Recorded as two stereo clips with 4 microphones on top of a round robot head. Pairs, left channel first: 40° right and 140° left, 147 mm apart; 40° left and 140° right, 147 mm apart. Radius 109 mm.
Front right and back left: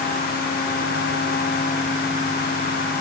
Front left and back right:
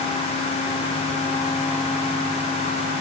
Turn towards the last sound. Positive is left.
No sound to turn to.